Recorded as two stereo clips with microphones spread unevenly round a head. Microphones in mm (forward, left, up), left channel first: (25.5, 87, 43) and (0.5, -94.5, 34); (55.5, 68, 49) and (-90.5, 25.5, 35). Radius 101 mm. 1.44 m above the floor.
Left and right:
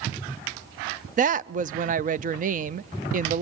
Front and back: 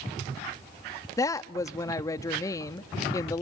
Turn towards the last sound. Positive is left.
turn(degrees=-55)